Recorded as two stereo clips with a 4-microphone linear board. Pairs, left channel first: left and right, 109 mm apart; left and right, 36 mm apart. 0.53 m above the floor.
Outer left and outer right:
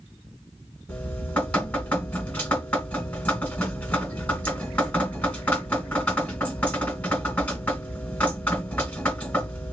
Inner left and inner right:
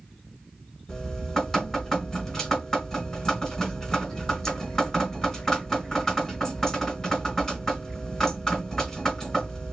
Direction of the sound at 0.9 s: 15° left (ahead or behind).